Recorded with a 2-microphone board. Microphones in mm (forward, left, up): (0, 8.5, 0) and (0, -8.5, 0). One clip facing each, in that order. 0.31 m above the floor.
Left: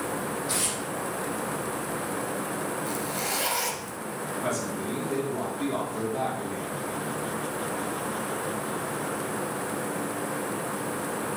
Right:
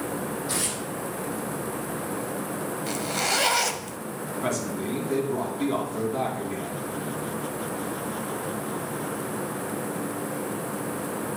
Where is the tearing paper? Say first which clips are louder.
Even; 10° left (ahead or behind), 3.5 m.